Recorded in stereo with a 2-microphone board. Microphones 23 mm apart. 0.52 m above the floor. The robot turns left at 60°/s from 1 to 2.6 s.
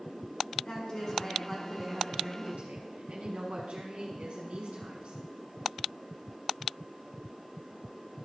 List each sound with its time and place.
0.7 s a woman speaking: 20° left, 5.5 m; by 5.2 s 75° right, 5.5 m